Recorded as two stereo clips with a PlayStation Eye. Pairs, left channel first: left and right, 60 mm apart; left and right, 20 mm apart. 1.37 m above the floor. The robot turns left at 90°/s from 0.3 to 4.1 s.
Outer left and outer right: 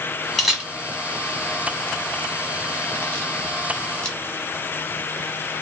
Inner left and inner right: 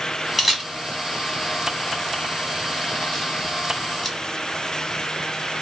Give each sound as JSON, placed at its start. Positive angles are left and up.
{"t": 0.4, "sound": "a camera shutter", "side_deg": 0, "distance_m": 1.2}